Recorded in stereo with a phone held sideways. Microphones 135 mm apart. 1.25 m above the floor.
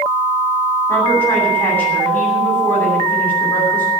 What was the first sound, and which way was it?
A woman speaking, 15° left (ahead or behind).